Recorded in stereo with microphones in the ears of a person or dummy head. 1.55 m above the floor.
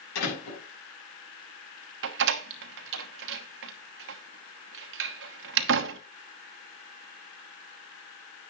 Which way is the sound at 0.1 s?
85° left.